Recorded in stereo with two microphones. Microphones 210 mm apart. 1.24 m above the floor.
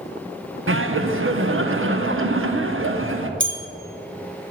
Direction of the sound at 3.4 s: 65° right (ahead or behind).